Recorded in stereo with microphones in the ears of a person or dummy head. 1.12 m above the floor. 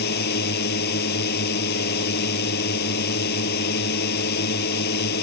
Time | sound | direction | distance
0.0 | a drone | 55° left (ahead or behind) | ?